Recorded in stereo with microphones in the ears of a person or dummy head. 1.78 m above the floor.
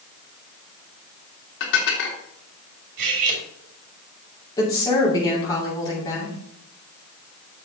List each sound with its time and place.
1.6 s dishes clattering: 70° left (ahead or behind), 3 m
3.0 s cutlery clinking: 55° right (ahead or behind), 4 m
4.6 s a woman speaking: 20° left (ahead or behind), 6 m